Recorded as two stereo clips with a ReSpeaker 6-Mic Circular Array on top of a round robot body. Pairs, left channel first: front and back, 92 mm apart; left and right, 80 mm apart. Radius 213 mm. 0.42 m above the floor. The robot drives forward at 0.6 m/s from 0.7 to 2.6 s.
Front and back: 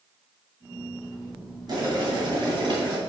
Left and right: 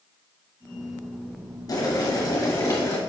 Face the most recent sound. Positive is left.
turn(degrees=145)